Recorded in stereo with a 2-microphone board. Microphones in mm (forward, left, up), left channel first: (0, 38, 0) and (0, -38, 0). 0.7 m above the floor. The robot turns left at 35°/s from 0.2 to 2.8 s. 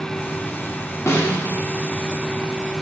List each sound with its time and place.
1.1 s a snare drum: 35° left (ahead or behind), 0.5 m; by 1.5 s 15° left (ahead or behind), 0.5 m